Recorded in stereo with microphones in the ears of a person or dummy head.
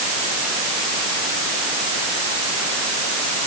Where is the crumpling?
I don't hear crumpling.